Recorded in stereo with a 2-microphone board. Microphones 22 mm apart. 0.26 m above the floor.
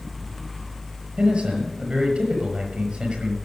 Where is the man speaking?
65° right (ahead or behind), 5.5 m.